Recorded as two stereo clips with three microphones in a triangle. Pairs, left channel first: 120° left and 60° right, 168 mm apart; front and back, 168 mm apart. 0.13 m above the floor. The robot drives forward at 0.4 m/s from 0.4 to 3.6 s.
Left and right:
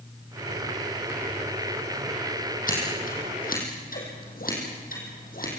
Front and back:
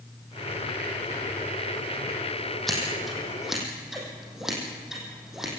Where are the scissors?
90° left, 6.5 m; by 5.5 s 95° left, 6.5 m.